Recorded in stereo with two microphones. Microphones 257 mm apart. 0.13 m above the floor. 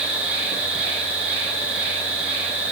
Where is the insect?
5° right (ahead or behind), 8.5 m.